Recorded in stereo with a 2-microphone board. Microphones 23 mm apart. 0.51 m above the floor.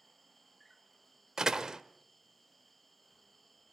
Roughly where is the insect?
Centre.